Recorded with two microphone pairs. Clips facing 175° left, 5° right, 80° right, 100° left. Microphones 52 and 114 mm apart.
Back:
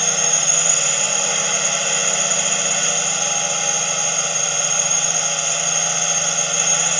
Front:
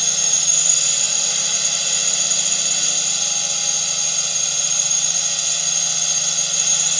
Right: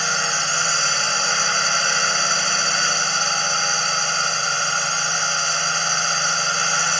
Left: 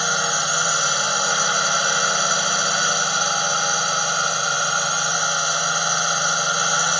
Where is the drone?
165° left.